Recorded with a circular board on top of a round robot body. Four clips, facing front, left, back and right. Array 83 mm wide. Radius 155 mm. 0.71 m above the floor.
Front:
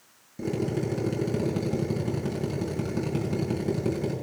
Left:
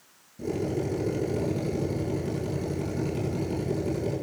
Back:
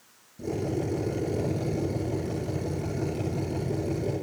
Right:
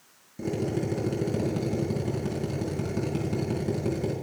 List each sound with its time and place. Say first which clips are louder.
0.4 s a drill: even, front 1 dB; 35° right, 5.5 m